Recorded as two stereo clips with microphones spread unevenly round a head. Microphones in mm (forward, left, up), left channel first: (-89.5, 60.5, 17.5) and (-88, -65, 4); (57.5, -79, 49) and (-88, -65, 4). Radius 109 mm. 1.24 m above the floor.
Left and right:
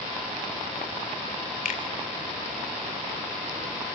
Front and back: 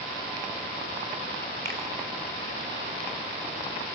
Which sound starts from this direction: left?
A finger snap, at 1.6 s.